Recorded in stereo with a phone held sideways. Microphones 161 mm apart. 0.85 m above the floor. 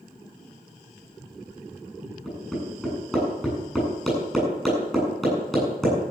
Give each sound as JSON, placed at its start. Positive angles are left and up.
{"t": 2.2, "sound": "hammering", "side_deg": 0, "distance_m": 9.0}